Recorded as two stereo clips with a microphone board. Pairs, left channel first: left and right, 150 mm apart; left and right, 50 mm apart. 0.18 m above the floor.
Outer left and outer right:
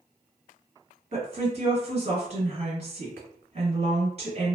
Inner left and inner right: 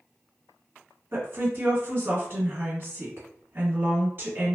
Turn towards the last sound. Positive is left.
turn(degrees=-45)  # may be behind; listen again after turning